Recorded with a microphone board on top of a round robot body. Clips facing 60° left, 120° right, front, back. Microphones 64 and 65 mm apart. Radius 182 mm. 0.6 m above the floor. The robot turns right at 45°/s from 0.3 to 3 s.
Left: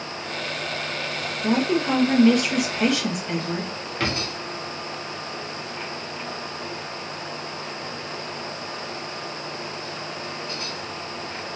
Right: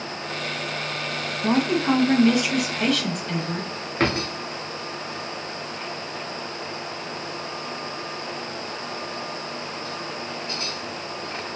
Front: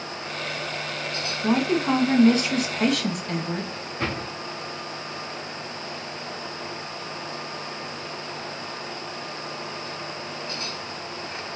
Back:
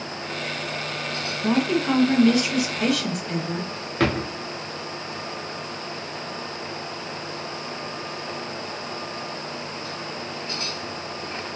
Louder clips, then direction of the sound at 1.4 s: Right 1 dB, even; 85° right.